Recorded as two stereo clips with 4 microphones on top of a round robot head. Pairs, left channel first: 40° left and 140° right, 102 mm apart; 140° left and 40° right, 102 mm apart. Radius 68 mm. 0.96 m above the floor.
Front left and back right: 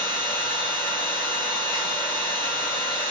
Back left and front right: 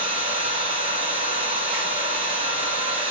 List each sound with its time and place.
0.0 s an engine running: 15° right, 1.1 m